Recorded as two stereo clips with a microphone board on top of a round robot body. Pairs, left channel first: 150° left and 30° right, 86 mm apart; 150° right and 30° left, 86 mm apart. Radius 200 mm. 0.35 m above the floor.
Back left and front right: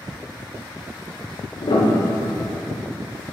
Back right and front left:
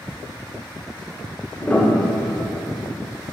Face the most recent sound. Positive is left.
turn(degrees=140)